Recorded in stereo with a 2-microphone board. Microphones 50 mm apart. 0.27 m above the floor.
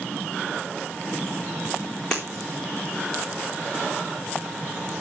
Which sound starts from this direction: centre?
Breaking glass, at 2.1 s.